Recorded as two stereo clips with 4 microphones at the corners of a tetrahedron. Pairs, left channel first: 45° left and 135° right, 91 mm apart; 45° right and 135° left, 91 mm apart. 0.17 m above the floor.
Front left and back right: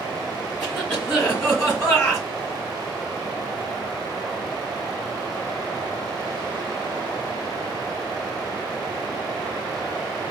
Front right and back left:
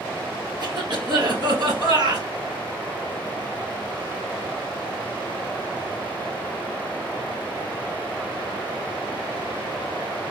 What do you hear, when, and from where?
0.6 s a cough: 140° left, 1.9 m